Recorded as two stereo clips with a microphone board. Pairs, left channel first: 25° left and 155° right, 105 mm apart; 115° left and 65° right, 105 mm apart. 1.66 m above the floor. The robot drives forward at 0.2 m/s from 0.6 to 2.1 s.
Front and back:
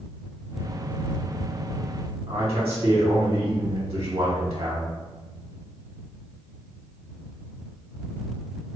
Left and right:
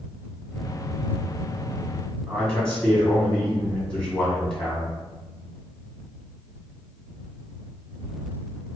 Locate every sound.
2.3 s a man speaking: 170° right, 1.4 m